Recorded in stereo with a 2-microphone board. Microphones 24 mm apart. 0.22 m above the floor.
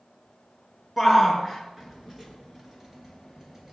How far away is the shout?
About 2.5 m.